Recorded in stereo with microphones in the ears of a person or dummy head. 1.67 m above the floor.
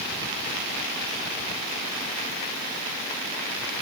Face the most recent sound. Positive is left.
No sound to turn to.